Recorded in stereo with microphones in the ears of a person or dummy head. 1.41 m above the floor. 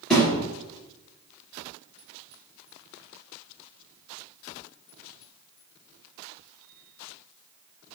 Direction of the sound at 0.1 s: Centre (ahead or behind).